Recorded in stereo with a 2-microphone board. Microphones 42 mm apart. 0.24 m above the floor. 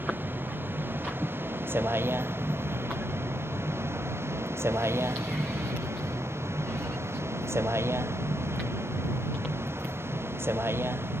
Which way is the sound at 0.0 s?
50° right (ahead or behind).